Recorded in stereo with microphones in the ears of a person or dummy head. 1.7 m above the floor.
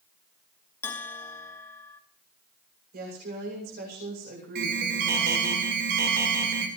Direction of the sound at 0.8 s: 15° left (ahead or behind).